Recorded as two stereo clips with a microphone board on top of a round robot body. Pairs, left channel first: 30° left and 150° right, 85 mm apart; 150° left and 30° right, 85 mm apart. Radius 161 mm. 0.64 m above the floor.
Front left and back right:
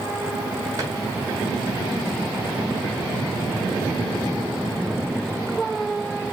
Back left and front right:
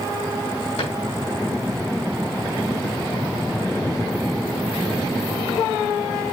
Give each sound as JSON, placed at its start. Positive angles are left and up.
{"t": 0.8, "sound": "a drawer", "azimuth_deg": 155, "distance_m": 2.5}